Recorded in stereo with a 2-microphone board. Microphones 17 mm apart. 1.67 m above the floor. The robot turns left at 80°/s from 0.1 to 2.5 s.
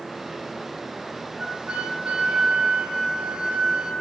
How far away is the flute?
About 1.4 m.